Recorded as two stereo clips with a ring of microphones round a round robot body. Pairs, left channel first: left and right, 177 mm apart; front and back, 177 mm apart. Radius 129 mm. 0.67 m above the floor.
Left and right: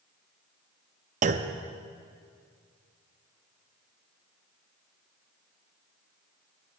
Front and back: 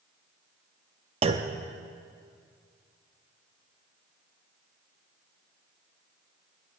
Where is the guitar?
I don't hear a guitar.